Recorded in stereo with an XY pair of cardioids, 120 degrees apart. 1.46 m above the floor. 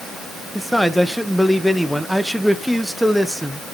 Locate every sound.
0.6 s a man speaking: straight ahead, 1.3 m